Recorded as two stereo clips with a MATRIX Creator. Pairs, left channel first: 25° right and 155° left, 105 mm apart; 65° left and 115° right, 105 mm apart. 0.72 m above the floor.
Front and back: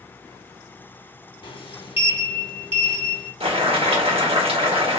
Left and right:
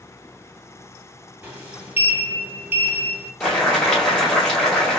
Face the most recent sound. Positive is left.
turn(degrees=150)